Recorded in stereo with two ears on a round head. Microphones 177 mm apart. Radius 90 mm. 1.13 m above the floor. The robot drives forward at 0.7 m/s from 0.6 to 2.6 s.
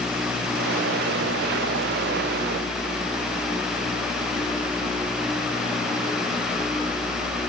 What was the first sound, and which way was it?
Only background noise.